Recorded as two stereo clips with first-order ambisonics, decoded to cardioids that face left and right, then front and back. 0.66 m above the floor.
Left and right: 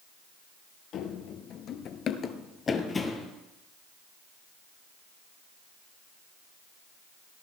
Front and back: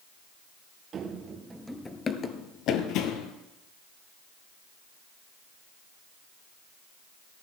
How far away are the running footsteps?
About 0.9 m.